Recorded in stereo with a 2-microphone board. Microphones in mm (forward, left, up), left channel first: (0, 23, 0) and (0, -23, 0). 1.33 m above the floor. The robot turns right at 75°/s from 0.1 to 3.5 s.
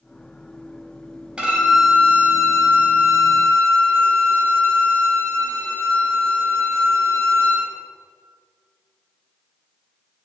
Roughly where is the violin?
Ahead right.